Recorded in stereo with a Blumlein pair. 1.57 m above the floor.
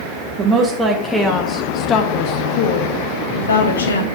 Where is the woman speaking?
20° right, 1.4 m; by 4.0 s 75° left, 1.8 m.